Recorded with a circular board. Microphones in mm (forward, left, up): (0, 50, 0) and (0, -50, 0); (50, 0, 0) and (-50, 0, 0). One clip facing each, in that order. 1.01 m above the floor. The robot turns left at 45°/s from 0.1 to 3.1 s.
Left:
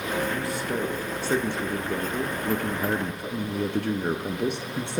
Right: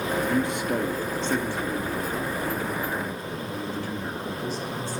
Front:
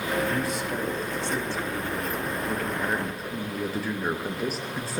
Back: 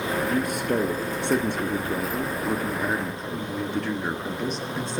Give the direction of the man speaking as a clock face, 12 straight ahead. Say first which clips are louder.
Right 4 dB, back 4 dB; 5 o'clock.